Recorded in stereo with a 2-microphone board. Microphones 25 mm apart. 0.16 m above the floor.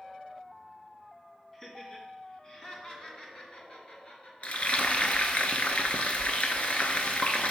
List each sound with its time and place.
1.5 s laughter: 10° left (ahead or behind), 1.4 m; by 5.4 s 55° left (ahead or behind), 3 m
4.4 s frying: 55° left (ahead or behind), 0.8 m